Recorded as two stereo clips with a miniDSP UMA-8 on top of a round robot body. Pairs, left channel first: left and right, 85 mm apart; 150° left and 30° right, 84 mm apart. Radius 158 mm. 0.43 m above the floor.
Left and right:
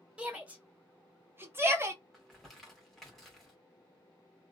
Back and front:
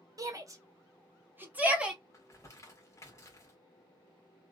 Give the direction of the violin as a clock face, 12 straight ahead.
No violin in this recording.